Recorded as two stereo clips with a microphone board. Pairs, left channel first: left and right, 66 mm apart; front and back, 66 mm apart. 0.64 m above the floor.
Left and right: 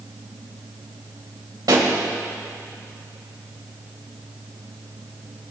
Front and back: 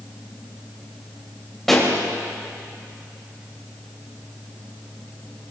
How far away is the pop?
About 3 m.